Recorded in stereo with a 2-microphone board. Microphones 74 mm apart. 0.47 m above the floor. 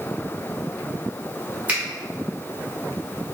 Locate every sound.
1.7 s a finger snap: 20° right (ahead or behind), 1.8 m